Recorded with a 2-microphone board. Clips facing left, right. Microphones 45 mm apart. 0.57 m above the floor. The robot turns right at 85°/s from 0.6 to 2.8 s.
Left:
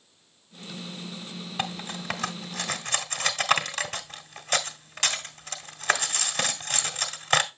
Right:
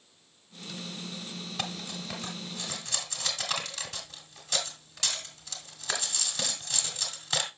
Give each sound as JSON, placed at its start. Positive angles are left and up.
{"t": 1.6, "sound": "cutlery clinking", "side_deg": 20, "distance_m": 1.3}